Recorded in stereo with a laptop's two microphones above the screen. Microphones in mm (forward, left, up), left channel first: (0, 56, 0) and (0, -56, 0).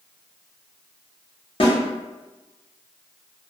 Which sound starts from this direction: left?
A snare drum, at 1.6 s.